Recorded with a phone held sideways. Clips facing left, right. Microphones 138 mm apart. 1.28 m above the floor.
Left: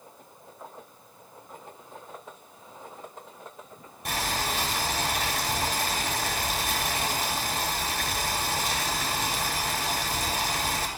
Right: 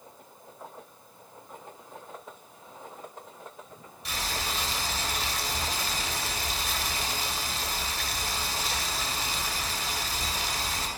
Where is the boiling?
55° left (ahead or behind), 7 m.